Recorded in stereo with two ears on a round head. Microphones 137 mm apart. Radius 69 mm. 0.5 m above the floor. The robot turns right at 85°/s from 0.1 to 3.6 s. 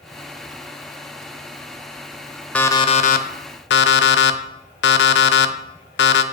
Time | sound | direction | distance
2.5 | an alarm clock | 10° left | 0.6 m